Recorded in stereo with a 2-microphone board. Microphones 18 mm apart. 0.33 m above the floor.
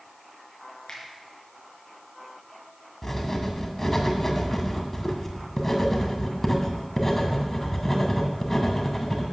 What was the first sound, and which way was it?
A finger snap, 35° left (ahead or behind).